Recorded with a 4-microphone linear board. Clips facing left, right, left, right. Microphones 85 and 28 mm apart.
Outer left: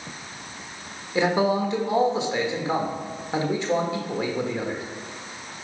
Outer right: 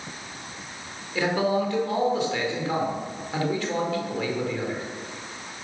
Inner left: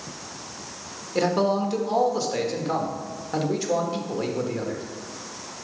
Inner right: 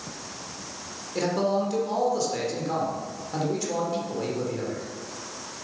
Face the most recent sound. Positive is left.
turn(degrees=20)  # may be behind; listen again after turning